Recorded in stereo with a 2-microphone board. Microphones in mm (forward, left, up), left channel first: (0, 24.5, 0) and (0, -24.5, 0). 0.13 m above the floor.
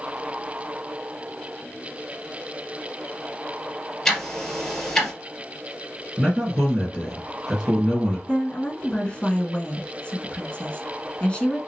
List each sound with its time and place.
4.0 s ticking: 15° left (ahead or behind), 2 m
6.2 s a man speaking: centre (ahead or behind), 2 m
8.3 s a woman speaking: 25° left (ahead or behind), 1.2 m